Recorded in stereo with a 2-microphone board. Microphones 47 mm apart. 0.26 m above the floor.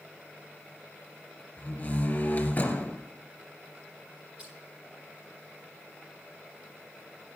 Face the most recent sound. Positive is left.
turn(degrees=-20)  # may be behind; listen again after turning